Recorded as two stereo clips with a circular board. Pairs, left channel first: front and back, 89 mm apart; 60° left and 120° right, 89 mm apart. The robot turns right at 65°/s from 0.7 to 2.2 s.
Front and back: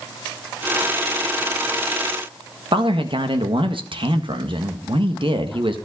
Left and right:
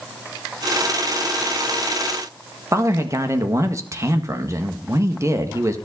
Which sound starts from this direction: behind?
A man speaking, at 2.7 s.